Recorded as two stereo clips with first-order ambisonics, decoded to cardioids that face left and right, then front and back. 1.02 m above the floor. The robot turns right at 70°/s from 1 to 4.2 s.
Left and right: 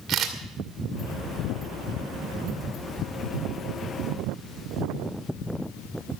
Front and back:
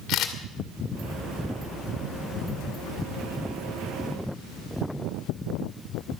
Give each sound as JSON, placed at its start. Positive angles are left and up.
{"t": 0.1, "sound": "a camera shutter", "azimuth_deg": -40, "distance_m": 2.0}